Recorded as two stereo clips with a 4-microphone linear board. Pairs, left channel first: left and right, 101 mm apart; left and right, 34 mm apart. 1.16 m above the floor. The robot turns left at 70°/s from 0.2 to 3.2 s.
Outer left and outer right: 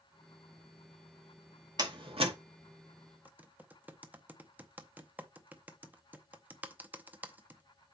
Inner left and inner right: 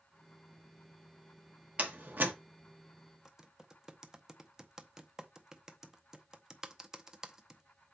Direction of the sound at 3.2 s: 15° right (ahead or behind).